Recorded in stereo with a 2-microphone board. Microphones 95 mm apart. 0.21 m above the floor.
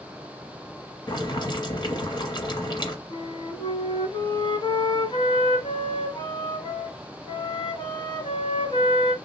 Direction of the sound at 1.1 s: 45° left (ahead or behind).